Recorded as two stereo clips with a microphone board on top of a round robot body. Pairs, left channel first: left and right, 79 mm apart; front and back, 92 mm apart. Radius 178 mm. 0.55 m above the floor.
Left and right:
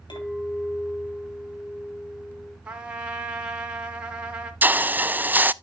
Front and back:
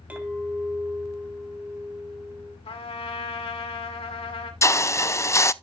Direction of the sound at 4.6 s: 35° right.